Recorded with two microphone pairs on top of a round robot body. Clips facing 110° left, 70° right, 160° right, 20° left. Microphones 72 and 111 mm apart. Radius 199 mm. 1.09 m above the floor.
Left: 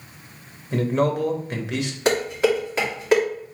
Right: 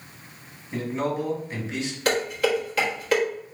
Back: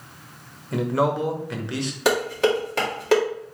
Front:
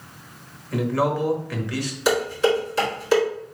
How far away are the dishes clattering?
About 1.9 m.